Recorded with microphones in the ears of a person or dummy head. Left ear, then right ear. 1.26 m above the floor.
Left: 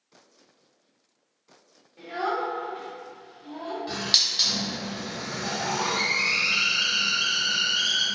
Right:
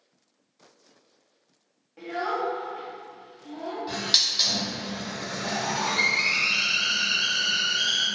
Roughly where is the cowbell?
I don't hear a cowbell.